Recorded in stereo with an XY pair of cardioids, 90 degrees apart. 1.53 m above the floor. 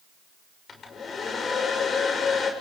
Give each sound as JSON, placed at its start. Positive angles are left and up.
{"t": 0.7, "sound": "a hair dryer", "azimuth_deg": 55, "distance_m": 7.0}